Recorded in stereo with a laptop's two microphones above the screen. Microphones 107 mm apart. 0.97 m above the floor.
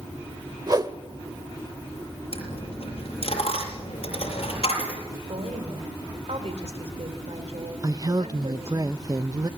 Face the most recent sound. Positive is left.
turn(degrees=-35)  # may be behind; listen again after turning